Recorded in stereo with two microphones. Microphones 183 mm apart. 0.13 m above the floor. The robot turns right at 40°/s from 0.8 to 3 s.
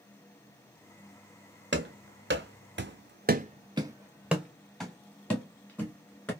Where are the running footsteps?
80° right, 1.1 m; by 6.3 s 10° left (ahead or behind), 2 m.